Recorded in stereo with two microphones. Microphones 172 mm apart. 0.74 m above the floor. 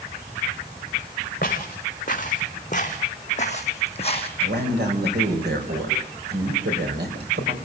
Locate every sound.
1.4 s footsteps: 50° left (ahead or behind), 3 m; by 4.3 s 35° left (ahead or behind), 1.7 m
4.4 s a man speaking: 75° right (ahead or behind), 4 m